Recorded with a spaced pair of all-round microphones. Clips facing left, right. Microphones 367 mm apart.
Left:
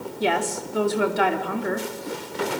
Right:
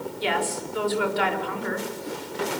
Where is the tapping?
I don't hear tapping.